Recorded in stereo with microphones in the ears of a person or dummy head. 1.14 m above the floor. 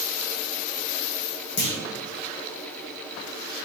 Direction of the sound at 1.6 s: 50° left (ahead or behind).